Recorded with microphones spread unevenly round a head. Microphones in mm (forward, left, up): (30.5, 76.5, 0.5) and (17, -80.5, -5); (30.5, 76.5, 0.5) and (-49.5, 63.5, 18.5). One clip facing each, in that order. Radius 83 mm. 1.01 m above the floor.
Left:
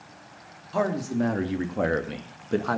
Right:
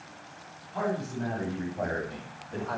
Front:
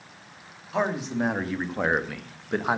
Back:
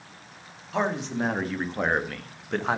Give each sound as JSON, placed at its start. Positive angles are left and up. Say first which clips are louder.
{"t": 0.7, "sound": "a man speaking", "louder": "left 6 dB, front 1 dB", "azimuth_deg": 95, "distance_m": 2.5}